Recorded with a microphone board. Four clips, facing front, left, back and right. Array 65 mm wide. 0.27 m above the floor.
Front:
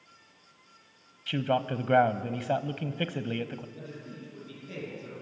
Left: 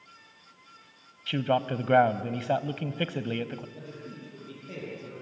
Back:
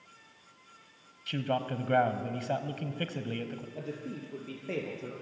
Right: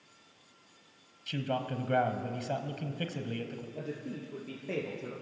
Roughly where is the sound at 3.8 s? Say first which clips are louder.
Right 3 dB, back 4 dB; behind right.